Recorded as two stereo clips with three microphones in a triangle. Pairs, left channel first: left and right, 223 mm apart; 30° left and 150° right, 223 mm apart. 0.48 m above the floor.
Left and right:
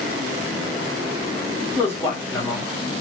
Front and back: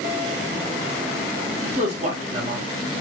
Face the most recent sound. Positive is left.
turn(degrees=165)